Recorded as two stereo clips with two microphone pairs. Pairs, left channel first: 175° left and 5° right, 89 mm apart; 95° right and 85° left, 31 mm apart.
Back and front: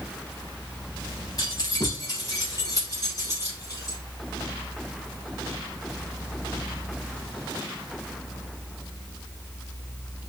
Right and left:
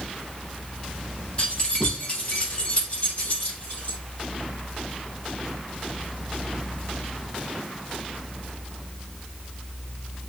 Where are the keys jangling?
145° right, 2.5 m; by 4.0 s 135° right, 4 m.